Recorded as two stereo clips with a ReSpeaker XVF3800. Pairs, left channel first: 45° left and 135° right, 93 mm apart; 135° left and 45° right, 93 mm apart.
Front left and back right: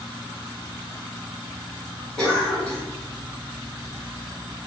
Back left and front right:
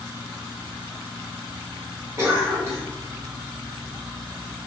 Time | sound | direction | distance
2.2 | a cough | 25° right | 1.5 m